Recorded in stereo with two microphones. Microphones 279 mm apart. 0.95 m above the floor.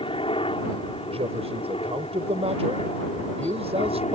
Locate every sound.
0.0 s a helicopter: 20° left (ahead or behind)
1.1 s a man speaking: 20° right (ahead or behind)